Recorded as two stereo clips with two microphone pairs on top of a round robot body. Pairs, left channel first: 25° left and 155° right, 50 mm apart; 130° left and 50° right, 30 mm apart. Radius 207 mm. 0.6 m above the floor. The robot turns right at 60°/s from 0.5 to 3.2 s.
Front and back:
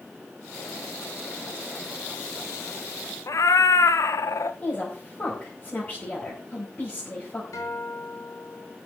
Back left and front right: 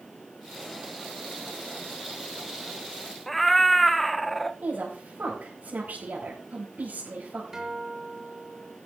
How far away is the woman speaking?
About 5 m.